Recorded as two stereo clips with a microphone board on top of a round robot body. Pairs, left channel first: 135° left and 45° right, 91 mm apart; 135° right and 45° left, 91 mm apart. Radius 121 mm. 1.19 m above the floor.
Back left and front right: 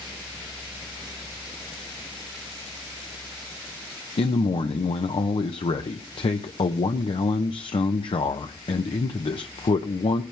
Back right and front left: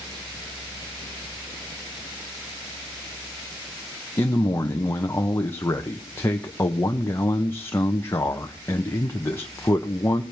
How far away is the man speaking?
About 1.0 m.